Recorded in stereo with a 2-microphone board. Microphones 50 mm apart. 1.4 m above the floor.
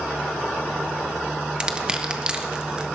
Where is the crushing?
15° right (ahead or behind), 1.0 m.